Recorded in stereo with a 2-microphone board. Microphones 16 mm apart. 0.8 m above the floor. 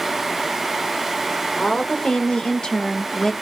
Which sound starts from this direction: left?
A woman speaking, at 1.6 s.